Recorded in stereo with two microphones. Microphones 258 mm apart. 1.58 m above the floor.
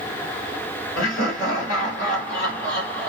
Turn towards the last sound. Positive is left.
turn(degrees=55)  # may be behind; listen again after turning